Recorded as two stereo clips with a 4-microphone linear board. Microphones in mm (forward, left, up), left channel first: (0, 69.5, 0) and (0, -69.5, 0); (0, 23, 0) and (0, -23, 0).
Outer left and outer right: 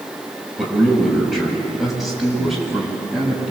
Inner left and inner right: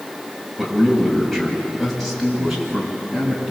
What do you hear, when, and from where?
0.6 s a man speaking: centre (ahead or behind), 6 m